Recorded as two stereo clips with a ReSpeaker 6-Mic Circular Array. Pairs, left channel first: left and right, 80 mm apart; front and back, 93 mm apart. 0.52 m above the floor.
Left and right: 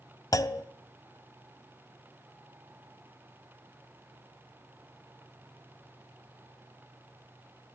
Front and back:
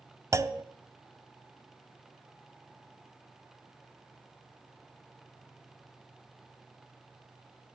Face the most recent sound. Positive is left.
turn(degrees=125)